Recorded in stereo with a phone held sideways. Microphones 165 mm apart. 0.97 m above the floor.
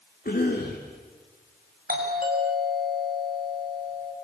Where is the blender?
I don't hear a blender.